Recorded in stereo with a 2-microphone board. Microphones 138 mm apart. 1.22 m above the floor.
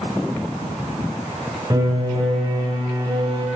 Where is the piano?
30° right (ahead or behind), 9.5 m.